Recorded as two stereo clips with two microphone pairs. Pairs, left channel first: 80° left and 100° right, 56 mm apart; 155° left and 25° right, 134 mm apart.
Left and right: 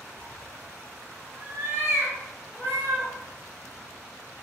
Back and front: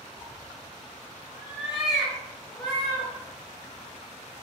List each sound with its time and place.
0.1 s a cat meowing: 30° left, 1.0 m; by 3.1 s 125° right, 1.8 m